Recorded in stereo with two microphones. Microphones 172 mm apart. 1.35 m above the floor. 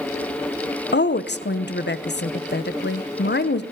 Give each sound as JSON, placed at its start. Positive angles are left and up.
{"t": 0.9, "sound": "a woman speaking", "side_deg": 80, "distance_m": 0.7}